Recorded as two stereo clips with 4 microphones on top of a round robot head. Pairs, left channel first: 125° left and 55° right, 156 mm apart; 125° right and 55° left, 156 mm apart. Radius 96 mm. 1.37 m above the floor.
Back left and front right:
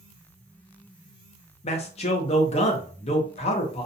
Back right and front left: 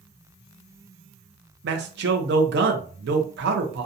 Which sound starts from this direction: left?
A man speaking, at 1.6 s.